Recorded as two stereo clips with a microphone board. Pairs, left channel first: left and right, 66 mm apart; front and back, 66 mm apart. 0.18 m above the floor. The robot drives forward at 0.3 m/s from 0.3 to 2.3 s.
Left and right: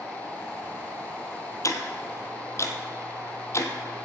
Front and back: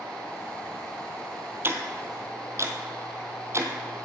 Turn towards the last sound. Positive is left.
turn(degrees=135)